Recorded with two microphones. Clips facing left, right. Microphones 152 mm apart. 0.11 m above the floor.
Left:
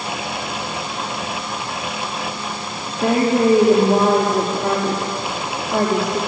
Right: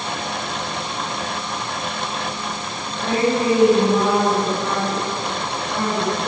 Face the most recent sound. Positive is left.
turn(degrees=50)  # may be behind; listen again after turning